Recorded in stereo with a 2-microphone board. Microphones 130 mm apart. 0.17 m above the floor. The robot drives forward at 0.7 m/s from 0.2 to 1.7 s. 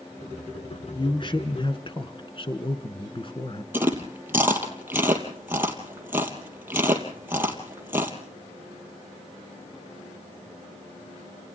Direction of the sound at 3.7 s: 15° right (ahead or behind).